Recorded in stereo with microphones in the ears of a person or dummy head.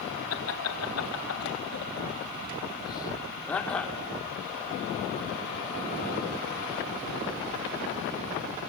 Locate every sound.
0.3 s laughter: 85° left, 2.5 m; by 4.0 s 5° left (ahead or behind), 3 m